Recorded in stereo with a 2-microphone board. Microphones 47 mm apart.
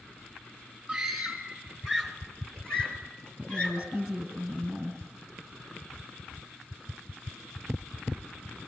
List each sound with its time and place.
0.9 s a scream: 5° right (ahead or behind), 3 m; by 4.0 s 20° left (ahead or behind), 6.5 m
3.4 s a woman speaking: 10° right (ahead or behind), 2.5 m